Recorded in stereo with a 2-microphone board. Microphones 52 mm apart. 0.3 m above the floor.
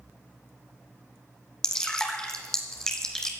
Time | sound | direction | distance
1.6 | dripping | 10° left (ahead or behind) | 2 m